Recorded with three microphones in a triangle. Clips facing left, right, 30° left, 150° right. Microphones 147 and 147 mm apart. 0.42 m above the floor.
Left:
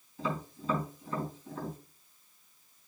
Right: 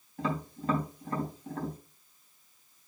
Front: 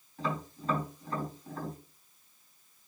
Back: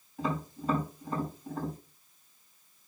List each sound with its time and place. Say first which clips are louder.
0.2 s tapping: right 2 dB, back 2 dB; 75° right, 4 m